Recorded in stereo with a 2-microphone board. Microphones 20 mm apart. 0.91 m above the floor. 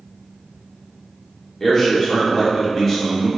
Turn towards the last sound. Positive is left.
turn(degrees=10)  # may be behind; listen again after turning